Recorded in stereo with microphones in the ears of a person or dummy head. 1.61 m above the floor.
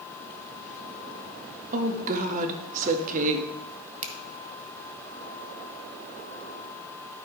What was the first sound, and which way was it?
A woman speaking, 40° right (ahead or behind).